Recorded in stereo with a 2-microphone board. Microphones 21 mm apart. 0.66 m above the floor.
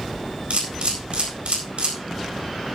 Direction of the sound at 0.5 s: 65° right (ahead or behind).